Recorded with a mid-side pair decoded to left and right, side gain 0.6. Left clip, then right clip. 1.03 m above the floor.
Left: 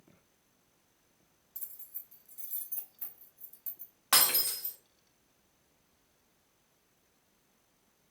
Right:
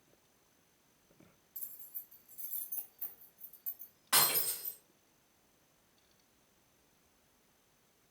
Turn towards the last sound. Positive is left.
turn(degrees=60)